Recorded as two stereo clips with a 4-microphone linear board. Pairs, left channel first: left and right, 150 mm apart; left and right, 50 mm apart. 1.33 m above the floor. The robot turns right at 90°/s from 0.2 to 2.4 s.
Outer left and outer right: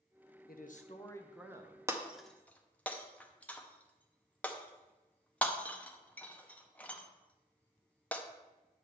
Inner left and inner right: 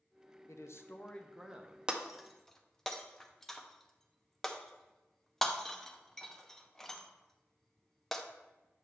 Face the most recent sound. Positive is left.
turn(degrees=10)  # may be behind; listen again after turning